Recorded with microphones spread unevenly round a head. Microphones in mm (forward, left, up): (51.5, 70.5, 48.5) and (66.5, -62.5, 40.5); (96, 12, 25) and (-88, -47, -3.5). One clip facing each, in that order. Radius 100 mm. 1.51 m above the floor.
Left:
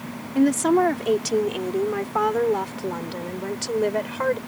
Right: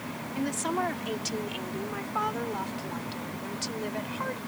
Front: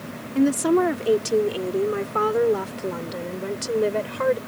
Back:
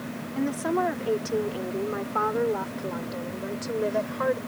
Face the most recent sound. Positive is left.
turn(degrees=70)